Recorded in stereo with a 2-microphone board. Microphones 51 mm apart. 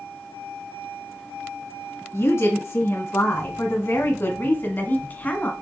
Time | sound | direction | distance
2.1 | a woman speaking | 55° left (ahead or behind) | 2 m